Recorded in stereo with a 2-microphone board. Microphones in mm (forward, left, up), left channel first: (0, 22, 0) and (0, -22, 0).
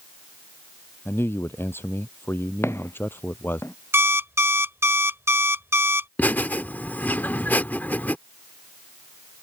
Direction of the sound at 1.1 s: 60° left (ahead or behind).